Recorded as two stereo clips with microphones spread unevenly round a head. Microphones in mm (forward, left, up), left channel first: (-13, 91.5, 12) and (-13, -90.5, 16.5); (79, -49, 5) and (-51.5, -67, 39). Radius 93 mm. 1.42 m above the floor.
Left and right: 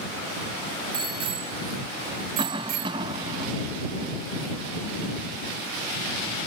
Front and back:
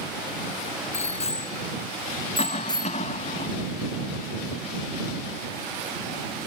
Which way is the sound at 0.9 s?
25° right.